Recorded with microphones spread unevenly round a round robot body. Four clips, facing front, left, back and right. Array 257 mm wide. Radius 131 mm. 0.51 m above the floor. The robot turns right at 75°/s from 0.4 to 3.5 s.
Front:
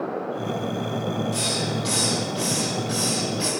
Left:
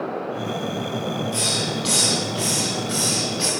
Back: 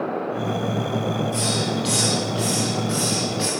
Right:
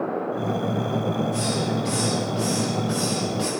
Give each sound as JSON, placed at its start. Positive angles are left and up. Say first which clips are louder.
{"t": 1.3, "sound": "a hiss", "louder": "right 2 dB, back 3 dB", "azimuth_deg": 65, "distance_m": 4.5}